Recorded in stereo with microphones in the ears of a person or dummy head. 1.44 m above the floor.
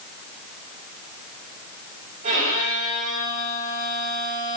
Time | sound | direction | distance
2.2 | a violin | 45° right (ahead or behind) | 3 m